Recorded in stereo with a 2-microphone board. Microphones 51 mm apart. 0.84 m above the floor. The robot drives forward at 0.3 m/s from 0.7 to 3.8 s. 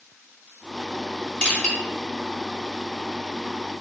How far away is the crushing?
About 1.6 m.